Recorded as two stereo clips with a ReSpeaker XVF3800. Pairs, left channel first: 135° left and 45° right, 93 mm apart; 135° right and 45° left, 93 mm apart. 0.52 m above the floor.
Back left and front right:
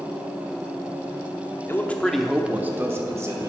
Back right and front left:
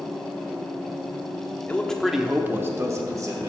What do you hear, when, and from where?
1.7 s a man speaking: 170° left, 1.0 m; by 3.5 s 5° left, 1.8 m